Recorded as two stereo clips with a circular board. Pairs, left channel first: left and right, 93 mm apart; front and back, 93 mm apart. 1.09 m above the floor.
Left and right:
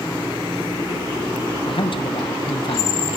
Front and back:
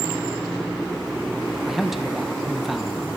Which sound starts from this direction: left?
A man speaking, at 1.6 s.